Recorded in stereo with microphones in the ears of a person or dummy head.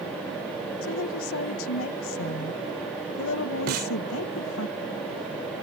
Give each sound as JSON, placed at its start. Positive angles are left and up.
{"t": 0.8, "sound": "a woman speaking", "side_deg": 70}
{"t": 3.7, "sound": "a snare drum", "side_deg": -50}